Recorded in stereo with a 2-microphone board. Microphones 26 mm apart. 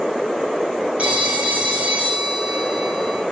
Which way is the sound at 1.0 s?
60° right (ahead or behind).